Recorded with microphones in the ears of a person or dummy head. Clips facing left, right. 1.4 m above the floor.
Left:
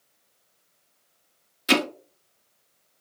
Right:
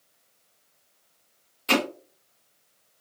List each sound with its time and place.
1.7 s hammering: 20° left (ahead or behind), 0.8 m